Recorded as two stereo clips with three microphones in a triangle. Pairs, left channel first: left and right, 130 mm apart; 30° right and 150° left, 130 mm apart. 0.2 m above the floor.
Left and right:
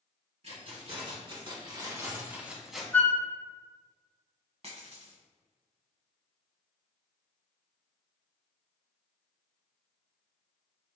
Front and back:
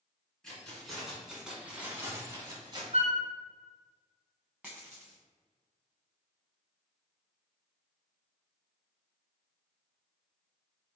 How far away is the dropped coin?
About 1.8 m.